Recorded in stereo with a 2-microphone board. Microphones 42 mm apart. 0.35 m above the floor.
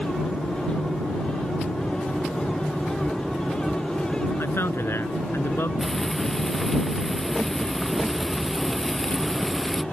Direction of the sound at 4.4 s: 75° left (ahead or behind).